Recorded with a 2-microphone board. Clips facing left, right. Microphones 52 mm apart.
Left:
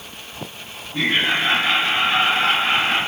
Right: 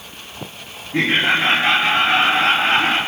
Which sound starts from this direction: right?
Laughter, at 0.9 s.